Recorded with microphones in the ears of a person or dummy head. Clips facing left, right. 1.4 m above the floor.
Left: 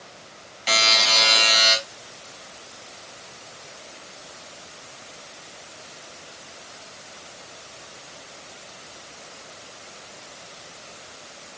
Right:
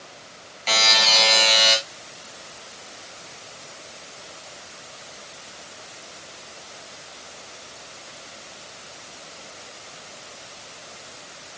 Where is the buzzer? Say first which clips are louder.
Right 1 dB; 5° left (ahead or behind), 3.5 m.